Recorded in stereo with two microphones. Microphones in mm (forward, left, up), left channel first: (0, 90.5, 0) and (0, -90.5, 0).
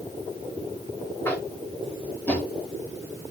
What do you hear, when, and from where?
1.2 s tapping: 10° left (ahead or behind), 0.9 m